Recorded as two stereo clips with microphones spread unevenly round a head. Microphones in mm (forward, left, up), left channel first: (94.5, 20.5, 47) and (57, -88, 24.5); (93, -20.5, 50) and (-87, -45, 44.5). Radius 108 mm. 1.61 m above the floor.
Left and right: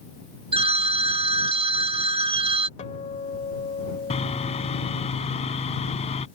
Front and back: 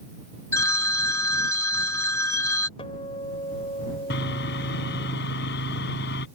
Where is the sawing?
45° left.